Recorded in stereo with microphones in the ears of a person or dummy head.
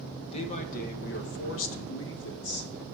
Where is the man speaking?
30° left (ahead or behind), 1.1 m; by 2.7 s 60° left (ahead or behind), 1.3 m.